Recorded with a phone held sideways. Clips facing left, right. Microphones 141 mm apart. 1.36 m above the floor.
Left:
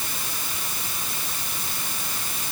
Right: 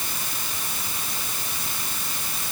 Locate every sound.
Only background noise.